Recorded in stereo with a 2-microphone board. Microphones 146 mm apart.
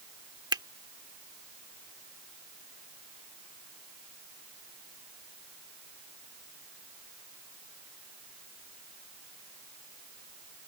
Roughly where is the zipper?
No zipper in this recording.